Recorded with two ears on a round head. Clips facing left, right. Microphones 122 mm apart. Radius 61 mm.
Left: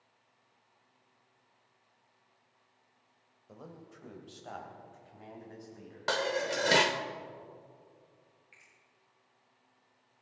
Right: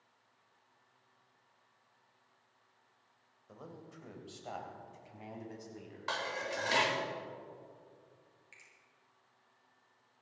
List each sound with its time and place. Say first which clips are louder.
3.5 s a man speaking: left 1 dB; 10° left (ahead or behind), 2.5 m; by 7.1 s 35° right (ahead or behind), 5 m
6.1 s dishes clattering: left 7 dB; 70° left (ahead or behind), 1.0 m
8.5 s a finger snap: even; 60° right (ahead or behind), 7.5 m